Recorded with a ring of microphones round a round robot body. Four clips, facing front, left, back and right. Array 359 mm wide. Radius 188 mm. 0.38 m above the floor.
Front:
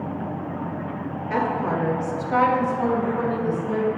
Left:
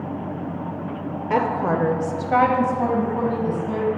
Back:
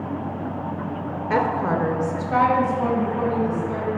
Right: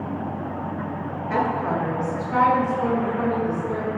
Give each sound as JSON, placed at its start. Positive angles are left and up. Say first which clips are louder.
{"t": 1.3, "sound": "a woman speaking", "louder": "left 2 dB, back 2 dB", "azimuth_deg": 130, "distance_m": 1.1}